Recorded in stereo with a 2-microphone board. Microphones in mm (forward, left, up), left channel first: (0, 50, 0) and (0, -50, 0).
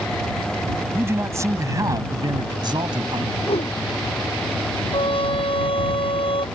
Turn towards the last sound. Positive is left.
turn(degrees=65)  # may be behind; listen again after turning